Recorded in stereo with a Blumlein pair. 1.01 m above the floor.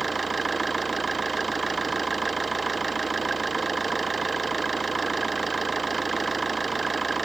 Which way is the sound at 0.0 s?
10° right.